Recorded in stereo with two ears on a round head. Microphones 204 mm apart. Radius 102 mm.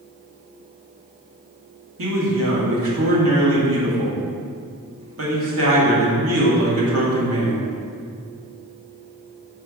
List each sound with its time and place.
2.0 s a man speaking: 65° right (ahead or behind), 1.8 m